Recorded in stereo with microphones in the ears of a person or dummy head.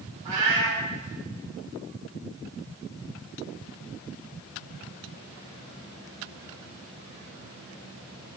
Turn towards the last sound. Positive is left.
turn(degrees=-15)  # may be behind; listen again after turning